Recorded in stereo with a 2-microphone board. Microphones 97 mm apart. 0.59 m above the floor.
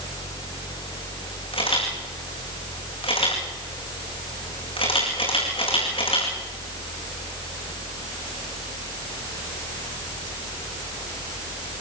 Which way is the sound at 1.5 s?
70° left (ahead or behind).